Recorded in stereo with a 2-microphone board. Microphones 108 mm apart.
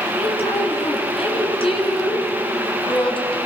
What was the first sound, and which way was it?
A woman speaking, 60° left (ahead or behind).